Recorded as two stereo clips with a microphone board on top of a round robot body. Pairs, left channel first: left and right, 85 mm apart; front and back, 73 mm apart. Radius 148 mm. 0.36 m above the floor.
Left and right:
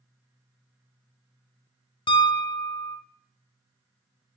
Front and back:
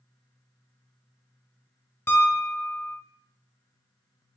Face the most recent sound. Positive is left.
turn(degrees=60)